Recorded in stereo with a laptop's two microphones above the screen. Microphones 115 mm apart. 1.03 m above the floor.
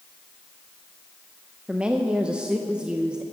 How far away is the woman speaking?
About 0.8 m.